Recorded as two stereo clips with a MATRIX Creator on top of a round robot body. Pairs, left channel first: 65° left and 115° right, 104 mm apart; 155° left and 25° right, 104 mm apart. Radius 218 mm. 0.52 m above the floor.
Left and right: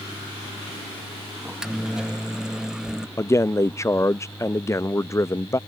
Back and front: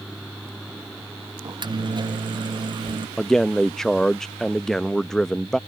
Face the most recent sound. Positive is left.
turn(degrees=75)